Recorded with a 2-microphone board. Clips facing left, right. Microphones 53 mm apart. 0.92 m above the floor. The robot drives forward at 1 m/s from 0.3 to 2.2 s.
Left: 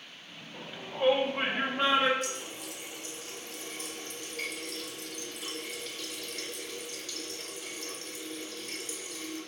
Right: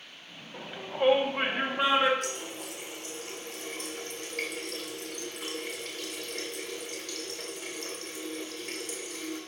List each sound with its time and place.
0.5 s a shout: 25° right (ahead or behind), 1.2 m; by 2.1 s 10° right (ahead or behind), 2.5 m
2.2 s a running tap: 55° right (ahead or behind), 1.9 m